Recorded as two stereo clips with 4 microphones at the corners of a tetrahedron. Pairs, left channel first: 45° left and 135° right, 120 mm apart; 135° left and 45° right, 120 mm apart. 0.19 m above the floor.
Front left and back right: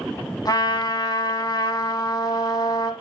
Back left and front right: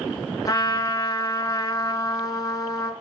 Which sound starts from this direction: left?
A trumpet, at 0.5 s.